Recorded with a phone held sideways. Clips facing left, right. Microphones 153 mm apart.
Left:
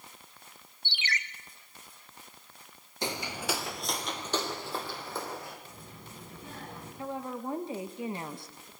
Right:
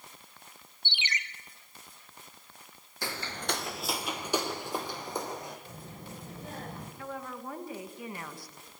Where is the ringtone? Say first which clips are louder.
Left 1 dB; 20° right (ahead or behind), 1.3 m.